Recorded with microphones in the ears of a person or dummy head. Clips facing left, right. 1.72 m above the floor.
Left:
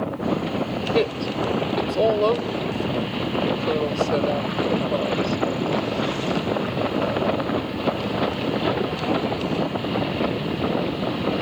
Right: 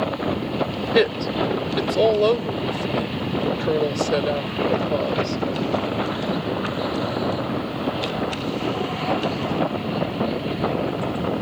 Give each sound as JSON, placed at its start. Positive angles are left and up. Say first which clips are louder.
{"t": 0.9, "sound": "a woman speaking", "louder": "right 4 dB", "side_deg": -20}